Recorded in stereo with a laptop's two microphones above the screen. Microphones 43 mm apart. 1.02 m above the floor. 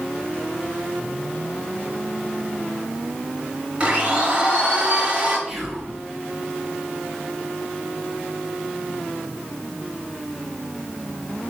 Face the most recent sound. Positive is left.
turn(degrees=-5)  # may be behind; listen again after turning